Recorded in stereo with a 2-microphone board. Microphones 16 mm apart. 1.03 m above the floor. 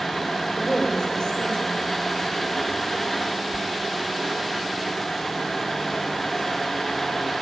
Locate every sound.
0.6 s a woman speaking: 55° left (ahead or behind), 4 m
3.5 s whispering: 5° left (ahead or behind), 1.2 m